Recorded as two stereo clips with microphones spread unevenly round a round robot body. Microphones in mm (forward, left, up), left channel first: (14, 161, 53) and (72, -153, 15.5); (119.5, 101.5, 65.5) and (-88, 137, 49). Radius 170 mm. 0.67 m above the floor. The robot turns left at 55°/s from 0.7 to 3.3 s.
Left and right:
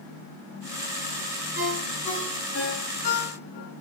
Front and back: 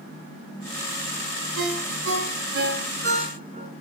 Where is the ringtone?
145° right, 6.5 m; by 3.7 s 120° left, 6.5 m.